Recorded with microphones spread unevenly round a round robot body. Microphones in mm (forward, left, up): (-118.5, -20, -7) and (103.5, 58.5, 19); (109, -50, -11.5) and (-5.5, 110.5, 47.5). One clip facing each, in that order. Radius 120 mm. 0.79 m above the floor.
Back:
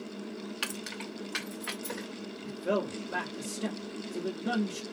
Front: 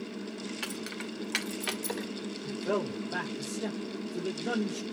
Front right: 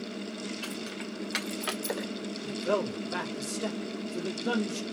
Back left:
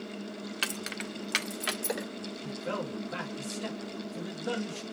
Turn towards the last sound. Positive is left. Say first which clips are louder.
# even, front right 7 dB
turn(degrees=-80)